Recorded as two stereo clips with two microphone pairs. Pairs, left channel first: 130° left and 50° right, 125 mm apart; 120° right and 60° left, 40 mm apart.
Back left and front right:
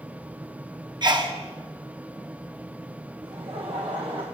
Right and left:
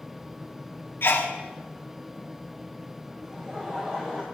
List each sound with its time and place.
1.0 s a sneeze: 100° right, 1.1 m
3.2 s laughter: 10° right, 1.0 m